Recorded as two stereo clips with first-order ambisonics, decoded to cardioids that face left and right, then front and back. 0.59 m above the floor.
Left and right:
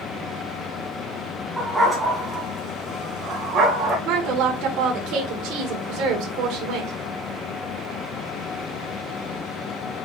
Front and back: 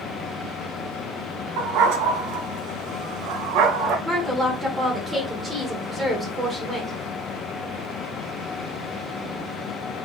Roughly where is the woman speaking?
Right.